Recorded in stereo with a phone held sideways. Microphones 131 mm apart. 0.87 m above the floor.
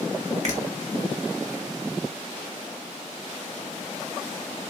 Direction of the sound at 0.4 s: 60° right (ahead or behind).